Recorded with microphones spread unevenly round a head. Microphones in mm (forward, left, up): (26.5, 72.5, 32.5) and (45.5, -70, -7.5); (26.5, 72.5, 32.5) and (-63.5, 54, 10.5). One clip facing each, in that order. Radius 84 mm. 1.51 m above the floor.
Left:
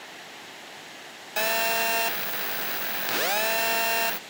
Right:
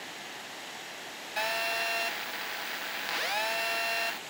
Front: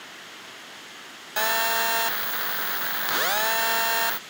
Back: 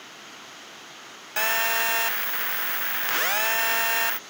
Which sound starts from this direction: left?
A phone buzzing, at 1.4 s.